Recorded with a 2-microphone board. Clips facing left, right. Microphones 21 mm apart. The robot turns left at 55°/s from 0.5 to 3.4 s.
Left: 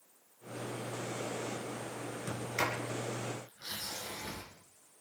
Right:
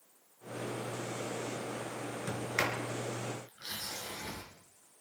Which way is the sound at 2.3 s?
10° right (ahead or behind).